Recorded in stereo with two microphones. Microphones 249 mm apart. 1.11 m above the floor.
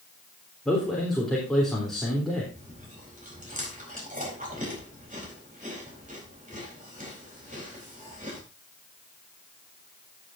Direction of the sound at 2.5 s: 30° right (ahead or behind).